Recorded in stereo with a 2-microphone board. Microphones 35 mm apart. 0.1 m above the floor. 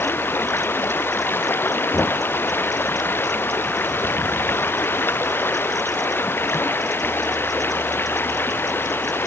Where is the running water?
85° left.